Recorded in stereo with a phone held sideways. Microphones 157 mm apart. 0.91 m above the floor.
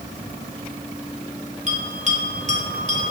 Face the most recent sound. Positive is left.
turn(degrees=-50)  # may be behind; listen again after turning